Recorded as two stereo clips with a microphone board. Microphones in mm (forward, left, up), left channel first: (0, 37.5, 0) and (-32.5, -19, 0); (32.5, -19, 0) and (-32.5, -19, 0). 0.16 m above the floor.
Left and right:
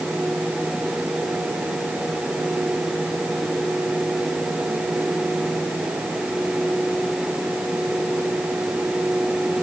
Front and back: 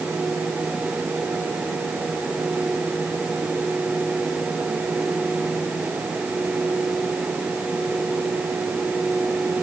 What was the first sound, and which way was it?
Only background noise.